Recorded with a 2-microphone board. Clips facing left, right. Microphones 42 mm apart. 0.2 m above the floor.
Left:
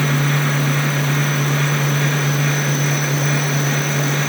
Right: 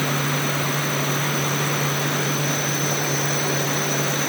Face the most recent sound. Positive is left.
No sound to turn to.